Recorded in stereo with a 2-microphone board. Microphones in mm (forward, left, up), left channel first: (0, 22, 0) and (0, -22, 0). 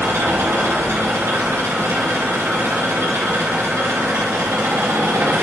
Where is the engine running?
75° right (ahead or behind), 4 m.